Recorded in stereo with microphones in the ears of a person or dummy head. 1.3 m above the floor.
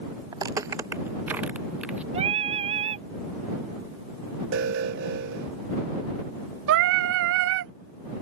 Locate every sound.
0.3 s footsteps: 25° right (ahead or behind); by 2.0 s 10° right (ahead or behind)
2.1 s singing: 40° right (ahead or behind)
4.5 s an alarm: 60° right (ahead or behind)
6.7 s singing: 65° right (ahead or behind)